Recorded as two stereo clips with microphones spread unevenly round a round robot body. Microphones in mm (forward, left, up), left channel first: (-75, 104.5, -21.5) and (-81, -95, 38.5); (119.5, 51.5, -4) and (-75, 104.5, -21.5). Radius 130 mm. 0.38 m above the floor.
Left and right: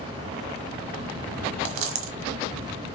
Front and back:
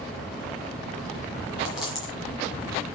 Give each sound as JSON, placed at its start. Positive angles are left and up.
{"t": 1.6, "sound": "a dropped coin", "azimuth_deg": -110, "distance_m": 1.4}